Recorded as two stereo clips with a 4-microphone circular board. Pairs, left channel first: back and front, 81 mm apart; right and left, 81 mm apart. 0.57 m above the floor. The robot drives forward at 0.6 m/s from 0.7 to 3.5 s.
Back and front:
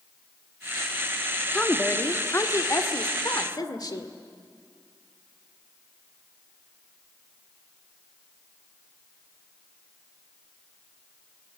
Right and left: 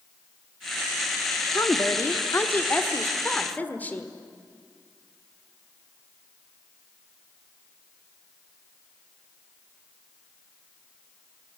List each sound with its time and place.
1.5 s a woman speaking: 105° right, 1.1 m; by 4.1 s 155° right, 1.7 m